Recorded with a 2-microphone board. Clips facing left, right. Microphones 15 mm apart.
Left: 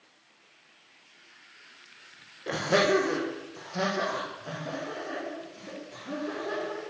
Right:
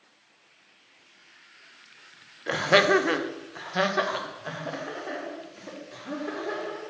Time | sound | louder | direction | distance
2.5 | laughter | right 4 dB | 25° right (ahead or behind) | 0.9 m